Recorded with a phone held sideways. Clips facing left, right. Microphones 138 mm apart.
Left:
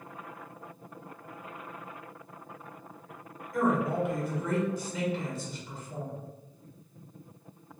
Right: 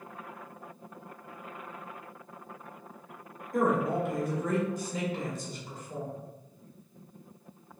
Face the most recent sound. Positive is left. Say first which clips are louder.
# even
turn(degrees=-40)  # may be behind; listen again after turning